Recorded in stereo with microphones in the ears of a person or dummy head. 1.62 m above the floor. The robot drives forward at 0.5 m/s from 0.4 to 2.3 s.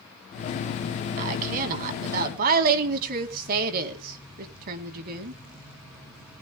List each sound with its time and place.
1.2 s a woman speaking: 45° right (ahead or behind), 4 m; by 5.4 s 50° right (ahead or behind), 3.5 m